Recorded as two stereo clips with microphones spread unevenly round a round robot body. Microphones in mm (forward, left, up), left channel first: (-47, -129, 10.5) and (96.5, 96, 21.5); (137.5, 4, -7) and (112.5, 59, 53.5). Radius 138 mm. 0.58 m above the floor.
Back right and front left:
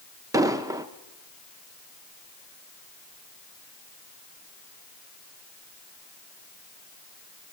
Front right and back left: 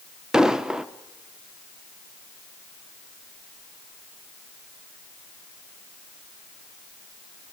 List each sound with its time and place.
0.3 s an explosion: 20° right, 1.1 m